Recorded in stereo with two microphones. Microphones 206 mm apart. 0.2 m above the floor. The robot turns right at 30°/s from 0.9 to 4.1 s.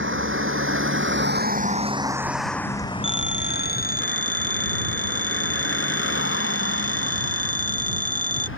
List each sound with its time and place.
0.0 s a vehicle: 75° right (ahead or behind); by 8.6 s 85° left
3.0 s a phone ringing: 110° left; by 8.5 s 140° left